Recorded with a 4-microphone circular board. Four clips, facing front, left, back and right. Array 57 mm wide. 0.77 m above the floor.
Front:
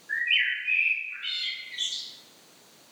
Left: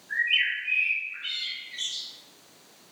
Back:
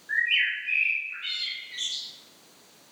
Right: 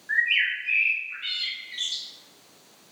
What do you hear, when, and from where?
0.1 s a bird: 110° right, 0.7 m